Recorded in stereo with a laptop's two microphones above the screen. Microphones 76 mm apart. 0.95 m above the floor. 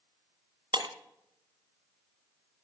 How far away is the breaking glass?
About 2.5 m.